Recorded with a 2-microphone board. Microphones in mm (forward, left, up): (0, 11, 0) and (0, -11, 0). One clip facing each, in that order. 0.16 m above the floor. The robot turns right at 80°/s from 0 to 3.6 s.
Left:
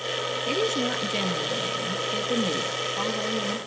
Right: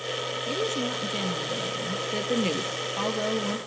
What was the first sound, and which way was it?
A woman speaking, 100° left.